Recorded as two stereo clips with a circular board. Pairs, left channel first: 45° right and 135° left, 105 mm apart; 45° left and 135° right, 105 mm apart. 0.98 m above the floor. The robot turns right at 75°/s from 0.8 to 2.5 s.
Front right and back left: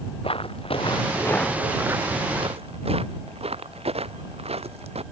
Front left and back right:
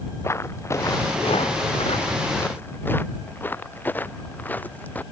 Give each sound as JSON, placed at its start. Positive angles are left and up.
{"t": 0.2, "sound": "footsteps", "azimuth_deg": -20}